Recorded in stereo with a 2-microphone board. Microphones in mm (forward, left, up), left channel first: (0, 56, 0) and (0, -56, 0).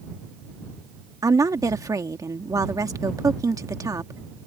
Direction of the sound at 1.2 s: 30° right (ahead or behind).